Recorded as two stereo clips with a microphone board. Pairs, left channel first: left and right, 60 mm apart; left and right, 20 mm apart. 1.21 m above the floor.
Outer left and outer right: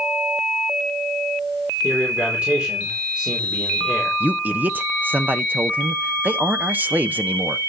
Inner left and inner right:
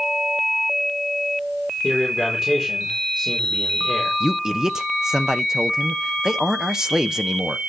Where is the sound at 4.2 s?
30° right (ahead or behind), 1.0 m.